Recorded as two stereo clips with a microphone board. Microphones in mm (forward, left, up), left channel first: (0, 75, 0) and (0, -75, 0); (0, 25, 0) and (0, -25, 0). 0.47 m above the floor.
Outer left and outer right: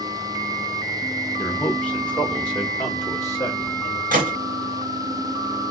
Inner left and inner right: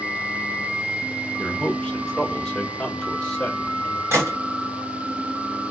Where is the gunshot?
75° right (ahead or behind), 2 m.